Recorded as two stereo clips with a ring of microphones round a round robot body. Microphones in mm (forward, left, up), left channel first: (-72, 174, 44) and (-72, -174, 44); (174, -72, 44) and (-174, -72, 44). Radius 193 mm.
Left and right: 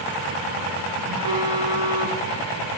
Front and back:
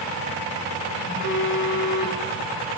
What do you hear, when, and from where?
1.1 s a phone buzzing: 55° right, 7 m